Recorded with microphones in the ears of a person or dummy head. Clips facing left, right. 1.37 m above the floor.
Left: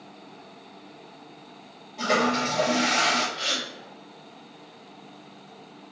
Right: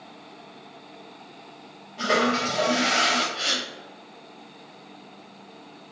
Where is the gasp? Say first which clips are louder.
Right 1 dB; 65° right (ahead or behind), 1.2 m.